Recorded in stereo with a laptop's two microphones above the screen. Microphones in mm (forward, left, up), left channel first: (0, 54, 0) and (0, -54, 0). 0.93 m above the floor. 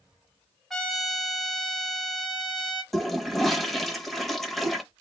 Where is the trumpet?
Centre (ahead or behind), 1.5 m.